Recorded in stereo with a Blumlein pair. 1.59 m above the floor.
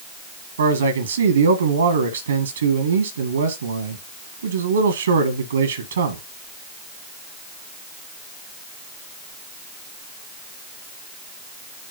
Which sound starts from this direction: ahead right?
A man speaking, at 0.6 s.